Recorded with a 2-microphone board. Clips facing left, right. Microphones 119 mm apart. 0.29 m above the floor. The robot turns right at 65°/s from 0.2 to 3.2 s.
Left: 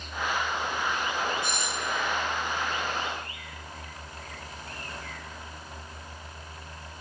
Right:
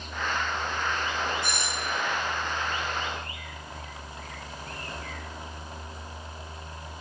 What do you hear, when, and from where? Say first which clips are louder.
1.4 s a doorbell: even; 105° right, 5 m; by 2.0 s 65° right, 5 m